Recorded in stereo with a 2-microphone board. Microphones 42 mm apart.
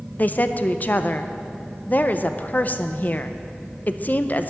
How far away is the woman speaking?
About 0.6 m.